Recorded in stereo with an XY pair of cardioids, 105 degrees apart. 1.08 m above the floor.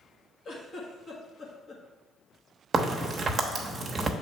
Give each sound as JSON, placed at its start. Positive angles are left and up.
{"t": 0.5, "sound": "a giggle", "azimuth_deg": 45, "distance_m": 1.5}
{"t": 2.7, "sound": "a crack", "azimuth_deg": -35, "distance_m": 1.0}